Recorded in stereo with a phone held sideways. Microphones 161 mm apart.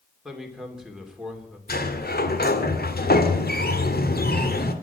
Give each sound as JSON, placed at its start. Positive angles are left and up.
{"t": 0.2, "sound": "a man speaking", "side_deg": -5, "distance_m": 3.0}
{"t": 1.7, "sound": "a sliding door", "side_deg": 75, "distance_m": 1.8}